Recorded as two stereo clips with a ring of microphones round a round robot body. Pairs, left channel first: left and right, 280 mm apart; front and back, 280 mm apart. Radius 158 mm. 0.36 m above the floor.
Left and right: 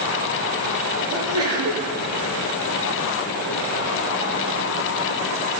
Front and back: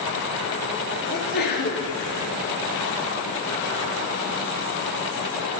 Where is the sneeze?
55° right, 7 m.